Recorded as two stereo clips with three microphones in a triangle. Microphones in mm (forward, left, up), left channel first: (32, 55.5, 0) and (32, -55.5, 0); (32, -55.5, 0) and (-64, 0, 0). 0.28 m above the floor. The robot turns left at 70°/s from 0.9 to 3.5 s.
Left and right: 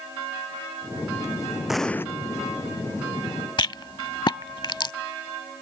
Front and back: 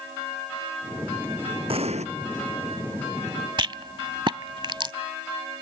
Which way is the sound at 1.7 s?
175° right.